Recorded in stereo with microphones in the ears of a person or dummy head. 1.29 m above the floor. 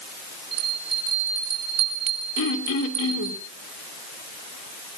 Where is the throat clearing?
70° left (ahead or behind), 3 m.